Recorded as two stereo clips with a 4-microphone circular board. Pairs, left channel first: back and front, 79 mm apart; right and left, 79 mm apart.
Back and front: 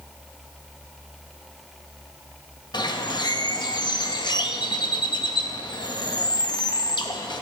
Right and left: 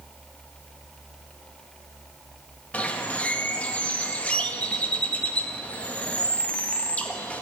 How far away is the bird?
About 0.8 m.